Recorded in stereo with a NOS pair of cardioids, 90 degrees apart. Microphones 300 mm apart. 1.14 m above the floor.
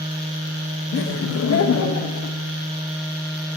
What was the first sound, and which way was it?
Laughter, 40° left.